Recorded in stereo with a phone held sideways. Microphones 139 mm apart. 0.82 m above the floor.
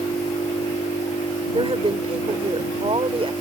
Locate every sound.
1.5 s a woman speaking: 45° right (ahead or behind)